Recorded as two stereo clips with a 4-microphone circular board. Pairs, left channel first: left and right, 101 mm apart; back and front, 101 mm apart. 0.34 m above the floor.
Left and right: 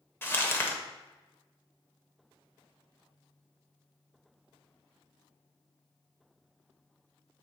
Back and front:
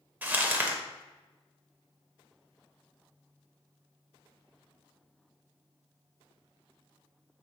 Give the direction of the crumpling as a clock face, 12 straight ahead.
10 o'clock.